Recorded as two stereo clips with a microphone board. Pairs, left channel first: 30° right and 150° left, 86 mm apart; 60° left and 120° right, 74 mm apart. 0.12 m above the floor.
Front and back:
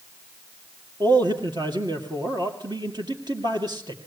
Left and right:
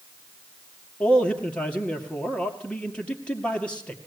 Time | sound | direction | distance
1.0 | a man speaking | 135° left | 2.5 m